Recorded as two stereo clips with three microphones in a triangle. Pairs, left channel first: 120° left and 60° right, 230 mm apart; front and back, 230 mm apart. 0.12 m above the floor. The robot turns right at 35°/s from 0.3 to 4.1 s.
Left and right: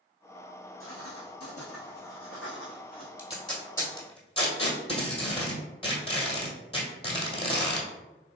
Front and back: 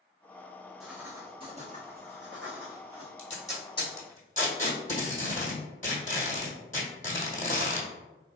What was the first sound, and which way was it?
Writing, 90° left.